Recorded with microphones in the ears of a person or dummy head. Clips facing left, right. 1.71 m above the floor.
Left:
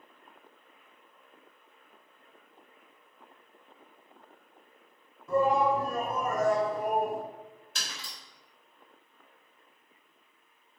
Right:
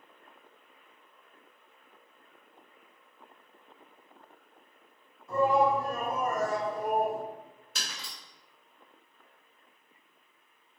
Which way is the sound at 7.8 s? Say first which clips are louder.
Right 1 dB; 5° right (ahead or behind).